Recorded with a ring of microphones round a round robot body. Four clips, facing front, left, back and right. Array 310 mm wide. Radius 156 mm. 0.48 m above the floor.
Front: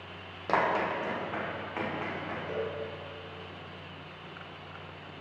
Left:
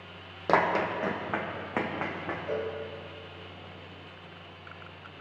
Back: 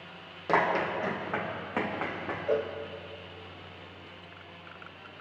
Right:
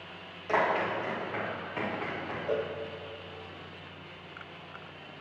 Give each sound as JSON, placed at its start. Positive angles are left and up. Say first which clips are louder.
{"t": 0.5, "sound": "running footsteps", "louder": "left 2 dB, back 1 dB", "azimuth_deg": 90, "distance_m": 1.4}
{"t": 2.5, "sound": "a cowbell", "louder": "right 2 dB, back 7 dB", "azimuth_deg": -170, "distance_m": 0.6}